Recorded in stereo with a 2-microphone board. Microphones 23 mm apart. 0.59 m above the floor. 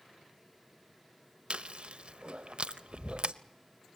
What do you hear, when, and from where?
1.5 s chewing: 55° right (ahead or behind), 0.6 m